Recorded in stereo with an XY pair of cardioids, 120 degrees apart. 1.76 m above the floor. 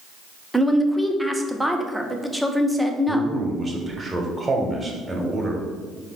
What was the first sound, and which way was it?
A woman speaking, 5° right.